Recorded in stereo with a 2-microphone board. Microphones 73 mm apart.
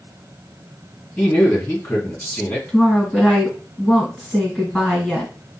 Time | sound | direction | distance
1.2 | a man speaking | 20° left (ahead or behind) | 1.8 m
2.7 | a woman speaking | 5° right (ahead or behind) | 1.9 m